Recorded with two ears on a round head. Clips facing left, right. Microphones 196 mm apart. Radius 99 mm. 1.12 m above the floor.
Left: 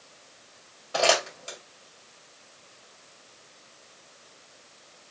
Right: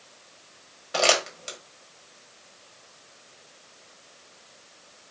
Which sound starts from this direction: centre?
Crumpling, at 0.9 s.